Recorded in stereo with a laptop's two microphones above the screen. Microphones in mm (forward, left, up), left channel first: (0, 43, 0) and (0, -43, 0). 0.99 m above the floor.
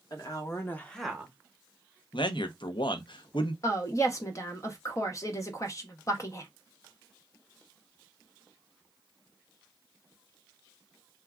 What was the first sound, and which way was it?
A woman speaking, 50° left (ahead or behind).